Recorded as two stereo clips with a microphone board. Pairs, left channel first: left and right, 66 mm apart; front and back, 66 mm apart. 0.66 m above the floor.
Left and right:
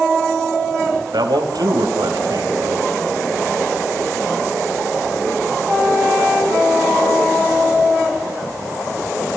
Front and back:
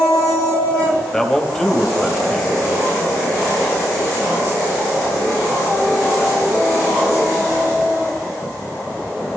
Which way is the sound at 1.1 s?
80° right.